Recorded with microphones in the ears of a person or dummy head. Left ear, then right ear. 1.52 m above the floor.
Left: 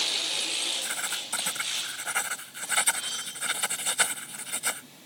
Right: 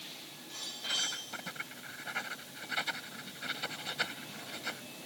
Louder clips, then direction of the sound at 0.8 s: Left 2 dB; 40° left (ahead or behind).